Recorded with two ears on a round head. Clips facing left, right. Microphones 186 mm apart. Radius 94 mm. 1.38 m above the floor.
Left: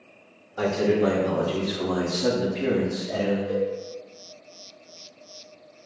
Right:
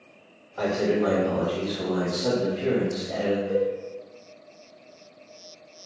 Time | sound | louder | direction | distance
0.6 | a man speaking | left 2 dB | 50° left (ahead or behind) | 1.5 m
3.5 | a cowbell | right 1 dB | 45° left (ahead or behind) | 1.4 m